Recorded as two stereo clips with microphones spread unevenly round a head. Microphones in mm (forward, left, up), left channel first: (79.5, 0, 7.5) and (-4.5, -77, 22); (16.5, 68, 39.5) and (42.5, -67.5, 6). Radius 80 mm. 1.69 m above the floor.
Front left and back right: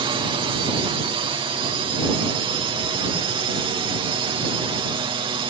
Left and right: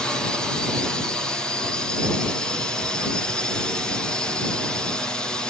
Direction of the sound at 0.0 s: 160° right.